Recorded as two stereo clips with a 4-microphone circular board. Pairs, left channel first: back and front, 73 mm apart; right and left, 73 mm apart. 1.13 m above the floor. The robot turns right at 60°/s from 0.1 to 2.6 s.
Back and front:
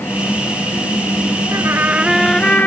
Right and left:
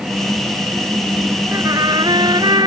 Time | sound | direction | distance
1.5 | a trumpet | 45° left | ?